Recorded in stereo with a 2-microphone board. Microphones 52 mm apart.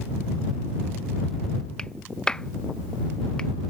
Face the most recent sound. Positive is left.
turn(degrees=15)  # may be behind; listen again after turning